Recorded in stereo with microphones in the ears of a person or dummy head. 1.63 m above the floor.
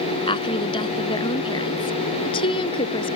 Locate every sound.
0.3 s a woman speaking: 25° left (ahead or behind); by 3.2 s 30° left (ahead or behind)